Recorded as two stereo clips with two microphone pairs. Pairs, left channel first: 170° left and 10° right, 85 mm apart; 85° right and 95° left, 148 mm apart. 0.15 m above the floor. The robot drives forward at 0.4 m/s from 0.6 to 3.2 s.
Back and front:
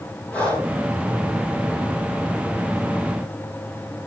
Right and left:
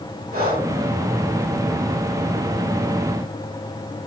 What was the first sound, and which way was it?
Breathing, 100° left.